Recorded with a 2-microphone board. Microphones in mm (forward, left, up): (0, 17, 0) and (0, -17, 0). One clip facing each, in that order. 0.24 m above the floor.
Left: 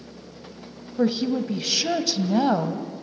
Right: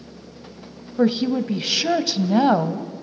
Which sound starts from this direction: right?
A woman speaking, at 1.0 s.